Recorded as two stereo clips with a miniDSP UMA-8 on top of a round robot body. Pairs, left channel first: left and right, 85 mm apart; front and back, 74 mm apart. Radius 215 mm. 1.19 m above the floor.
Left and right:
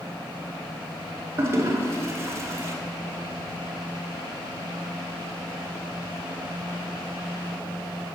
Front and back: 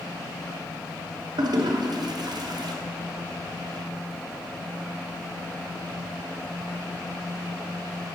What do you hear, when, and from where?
1.4 s a toilet flushing: 150° right, 0.9 m